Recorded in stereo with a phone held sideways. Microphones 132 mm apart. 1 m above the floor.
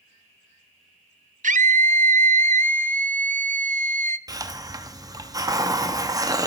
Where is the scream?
75° right (ahead or behind), 0.6 m.